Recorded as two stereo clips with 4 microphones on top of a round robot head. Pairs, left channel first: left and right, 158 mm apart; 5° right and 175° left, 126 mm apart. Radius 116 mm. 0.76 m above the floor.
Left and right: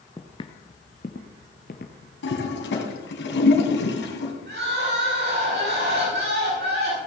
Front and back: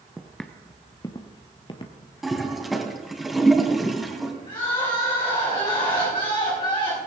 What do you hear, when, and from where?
0.2 s footsteps: 110° left, 0.7 m; by 2.1 s 40° left, 1.5 m
2.2 s a toilet flushing: 85° left, 2.5 m
4.5 s crying: 65° right, 6.5 m